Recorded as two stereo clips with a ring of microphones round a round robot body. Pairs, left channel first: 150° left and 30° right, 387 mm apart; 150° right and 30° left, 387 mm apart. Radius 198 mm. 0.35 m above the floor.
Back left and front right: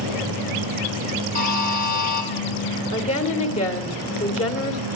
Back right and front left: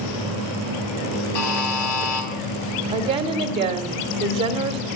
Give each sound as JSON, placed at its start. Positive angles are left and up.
{"t": 1.4, "sound": "a buzzer", "azimuth_deg": -145, "distance_m": 4.0}
{"t": 2.9, "sound": "a woman speaking", "azimuth_deg": 90, "distance_m": 1.7}